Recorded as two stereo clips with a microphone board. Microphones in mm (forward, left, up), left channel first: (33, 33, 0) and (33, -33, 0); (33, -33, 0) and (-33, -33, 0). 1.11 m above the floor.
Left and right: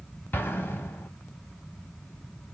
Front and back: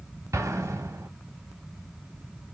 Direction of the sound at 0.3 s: 145° left.